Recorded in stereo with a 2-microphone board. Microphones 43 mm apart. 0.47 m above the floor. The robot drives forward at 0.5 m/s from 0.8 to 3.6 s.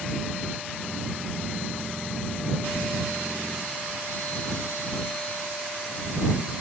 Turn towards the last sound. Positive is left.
No sound to turn to.